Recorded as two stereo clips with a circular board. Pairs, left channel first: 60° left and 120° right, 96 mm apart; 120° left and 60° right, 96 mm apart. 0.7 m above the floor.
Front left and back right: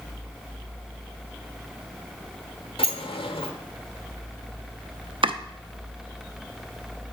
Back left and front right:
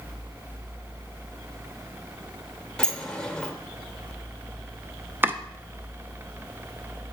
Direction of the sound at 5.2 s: 125° right.